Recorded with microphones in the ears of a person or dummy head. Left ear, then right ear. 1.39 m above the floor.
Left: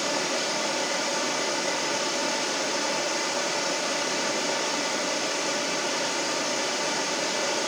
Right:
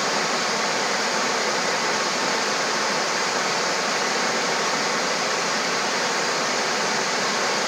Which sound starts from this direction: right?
Running water, at 0.0 s.